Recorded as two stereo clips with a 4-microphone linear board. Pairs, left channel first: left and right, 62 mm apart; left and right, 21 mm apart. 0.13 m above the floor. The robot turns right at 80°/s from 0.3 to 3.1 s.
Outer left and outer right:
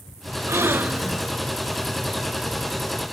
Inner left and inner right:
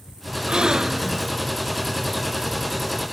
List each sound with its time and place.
0.5 s a gasp: 70° right, 0.5 m; by 1.3 s 5° right, 0.5 m